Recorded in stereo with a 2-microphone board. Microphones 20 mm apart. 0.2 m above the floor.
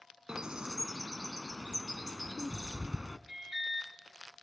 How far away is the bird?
About 0.7 m.